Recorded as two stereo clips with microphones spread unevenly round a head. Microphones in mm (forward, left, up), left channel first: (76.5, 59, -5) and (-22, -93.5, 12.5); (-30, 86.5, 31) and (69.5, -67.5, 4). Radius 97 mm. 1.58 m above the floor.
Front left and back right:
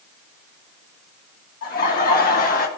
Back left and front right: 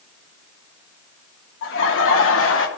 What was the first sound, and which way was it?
Laughter, 105° left.